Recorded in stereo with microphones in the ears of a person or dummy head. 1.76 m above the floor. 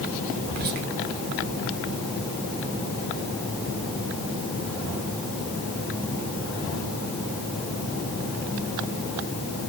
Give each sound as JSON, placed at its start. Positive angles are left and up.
{"t": 0.4, "sound": "whispering", "side_deg": -45, "distance_m": 0.6}